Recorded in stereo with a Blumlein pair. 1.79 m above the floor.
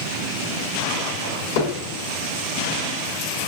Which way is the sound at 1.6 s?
45° left.